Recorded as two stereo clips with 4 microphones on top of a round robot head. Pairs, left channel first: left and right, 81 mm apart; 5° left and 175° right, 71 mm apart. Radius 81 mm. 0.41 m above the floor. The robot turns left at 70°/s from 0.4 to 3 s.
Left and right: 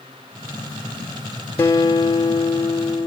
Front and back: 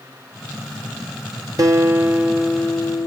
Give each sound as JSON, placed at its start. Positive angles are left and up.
{"t": 1.6, "sound": "a guitar", "azimuth_deg": 155, "distance_m": 0.9}